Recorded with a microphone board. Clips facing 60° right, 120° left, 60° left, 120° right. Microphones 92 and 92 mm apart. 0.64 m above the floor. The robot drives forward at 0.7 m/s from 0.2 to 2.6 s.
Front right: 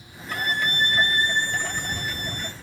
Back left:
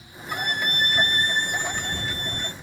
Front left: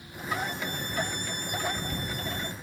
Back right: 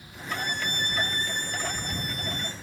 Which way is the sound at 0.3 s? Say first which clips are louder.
Front right 1 dB, even; 110° right.